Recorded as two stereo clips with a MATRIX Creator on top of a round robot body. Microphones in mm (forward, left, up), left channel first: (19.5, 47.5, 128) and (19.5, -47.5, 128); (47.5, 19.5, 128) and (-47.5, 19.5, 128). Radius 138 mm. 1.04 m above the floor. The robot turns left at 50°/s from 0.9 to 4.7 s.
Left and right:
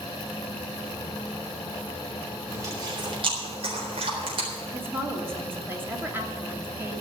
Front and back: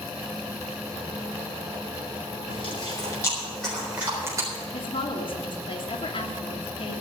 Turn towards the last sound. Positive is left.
turn(degrees=-25)